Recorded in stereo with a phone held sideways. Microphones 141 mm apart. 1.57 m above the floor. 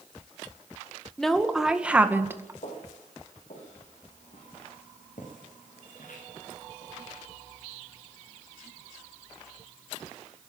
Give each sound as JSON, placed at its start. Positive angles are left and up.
{"t": 1.2, "sound": "a woman speaking", "side_deg": 5, "distance_m": 1.9}
{"t": 2.6, "sound": "footsteps", "side_deg": 60, "distance_m": 7.0}